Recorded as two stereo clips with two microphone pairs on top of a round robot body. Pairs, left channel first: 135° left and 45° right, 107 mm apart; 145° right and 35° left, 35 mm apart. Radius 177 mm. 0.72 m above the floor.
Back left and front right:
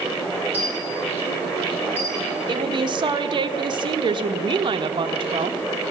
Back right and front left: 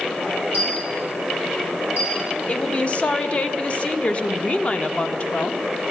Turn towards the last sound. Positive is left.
turn(degrees=-90)